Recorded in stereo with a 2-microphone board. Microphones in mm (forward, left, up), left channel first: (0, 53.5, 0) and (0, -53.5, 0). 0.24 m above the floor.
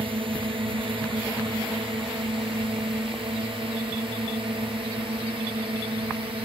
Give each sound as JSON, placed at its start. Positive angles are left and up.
{"t": 0.0, "sound": "a drone", "side_deg": -60}